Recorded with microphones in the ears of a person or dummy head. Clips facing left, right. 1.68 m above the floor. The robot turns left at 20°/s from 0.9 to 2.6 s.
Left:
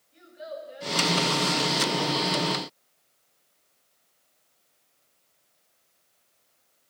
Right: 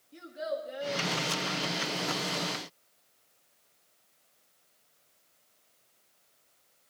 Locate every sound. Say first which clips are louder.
0.1 s a child speaking: right 4 dB; 60° right (ahead or behind), 2 m; by 1.1 s 55° right (ahead or behind), 2 m